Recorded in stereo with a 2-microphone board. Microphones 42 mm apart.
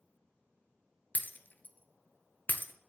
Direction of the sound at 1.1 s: 40° left (ahead or behind).